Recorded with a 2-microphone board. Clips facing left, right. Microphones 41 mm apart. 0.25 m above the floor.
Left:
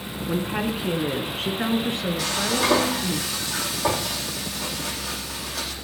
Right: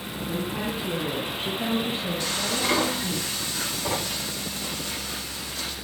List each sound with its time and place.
0.3 s a woman speaking: 65° left (ahead or behind), 3.5 m
2.2 s frying: 85° left, 9 m